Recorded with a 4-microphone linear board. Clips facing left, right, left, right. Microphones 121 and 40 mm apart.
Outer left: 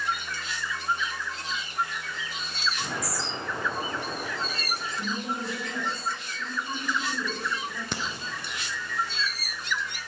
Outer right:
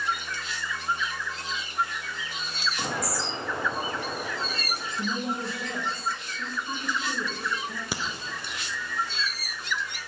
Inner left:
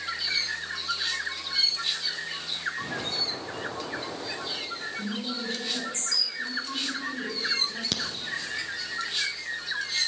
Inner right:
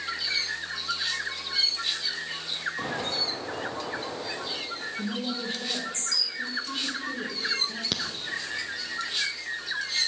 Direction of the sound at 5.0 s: 30° right (ahead or behind).